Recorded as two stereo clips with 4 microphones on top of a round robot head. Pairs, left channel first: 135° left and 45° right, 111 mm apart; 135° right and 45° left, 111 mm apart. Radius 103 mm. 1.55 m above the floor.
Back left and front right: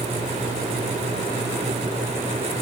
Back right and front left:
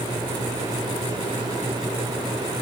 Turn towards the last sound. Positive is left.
No sound to turn to.